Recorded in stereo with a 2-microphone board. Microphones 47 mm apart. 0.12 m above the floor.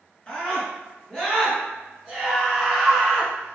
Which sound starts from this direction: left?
A scream, at 0.3 s.